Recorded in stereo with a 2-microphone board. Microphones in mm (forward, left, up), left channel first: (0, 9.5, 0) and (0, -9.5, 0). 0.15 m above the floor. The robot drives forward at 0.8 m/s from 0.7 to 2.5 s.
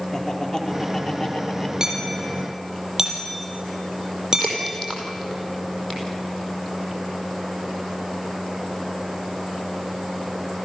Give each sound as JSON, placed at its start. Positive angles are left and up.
{"t": 0.1, "sound": "laughter", "side_deg": 30, "distance_m": 3.0}
{"t": 1.8, "sound": "hammering", "side_deg": -25, "distance_m": 4.5}
{"t": 4.4, "sound": "a crack", "side_deg": 25, "distance_m": 5.0}